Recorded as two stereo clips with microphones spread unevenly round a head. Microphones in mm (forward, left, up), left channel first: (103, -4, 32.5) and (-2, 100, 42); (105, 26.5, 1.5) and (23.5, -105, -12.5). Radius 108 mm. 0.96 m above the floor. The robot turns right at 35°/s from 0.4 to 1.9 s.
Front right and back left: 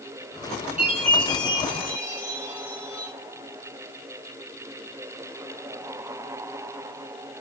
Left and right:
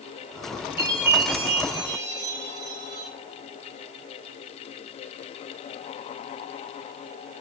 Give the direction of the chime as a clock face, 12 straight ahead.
6 o'clock.